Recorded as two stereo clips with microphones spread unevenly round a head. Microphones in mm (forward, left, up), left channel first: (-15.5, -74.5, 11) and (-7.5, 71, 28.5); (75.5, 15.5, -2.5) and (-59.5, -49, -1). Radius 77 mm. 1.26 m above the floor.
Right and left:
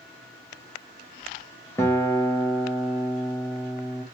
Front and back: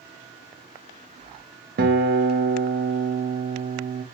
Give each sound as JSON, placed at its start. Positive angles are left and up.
{"t": 1.8, "sound": "a guitar", "azimuth_deg": -170, "distance_m": 0.6}